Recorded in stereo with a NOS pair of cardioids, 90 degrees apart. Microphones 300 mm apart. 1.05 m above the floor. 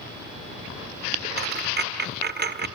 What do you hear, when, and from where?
1.4 s a dropped coin: 35° right, 1.7 m